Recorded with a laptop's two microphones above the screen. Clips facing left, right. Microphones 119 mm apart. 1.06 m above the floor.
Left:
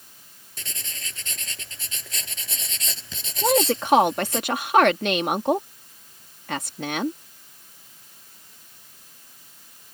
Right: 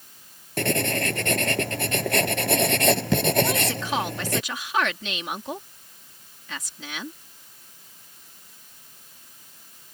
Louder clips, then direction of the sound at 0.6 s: Right 20 dB; 65° right (ahead or behind).